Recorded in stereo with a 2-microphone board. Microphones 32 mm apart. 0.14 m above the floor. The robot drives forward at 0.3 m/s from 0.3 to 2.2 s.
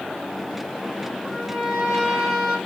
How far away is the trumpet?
About 3.5 m.